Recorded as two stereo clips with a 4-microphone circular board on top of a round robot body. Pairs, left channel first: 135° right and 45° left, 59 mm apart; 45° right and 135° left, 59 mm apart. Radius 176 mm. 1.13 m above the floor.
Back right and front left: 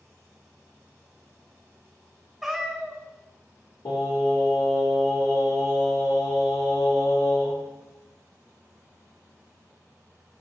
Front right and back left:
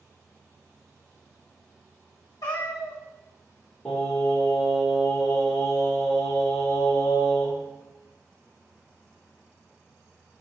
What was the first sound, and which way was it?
A cat meowing, 45° right.